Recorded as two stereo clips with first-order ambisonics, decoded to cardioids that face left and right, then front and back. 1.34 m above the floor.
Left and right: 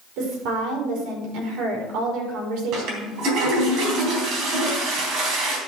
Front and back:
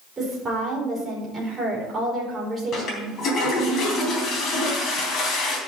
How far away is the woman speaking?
About 4 m.